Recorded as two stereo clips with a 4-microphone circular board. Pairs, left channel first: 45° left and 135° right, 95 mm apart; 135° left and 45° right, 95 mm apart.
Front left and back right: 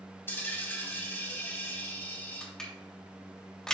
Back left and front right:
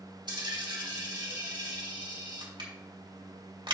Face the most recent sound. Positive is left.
turn(degrees=-35)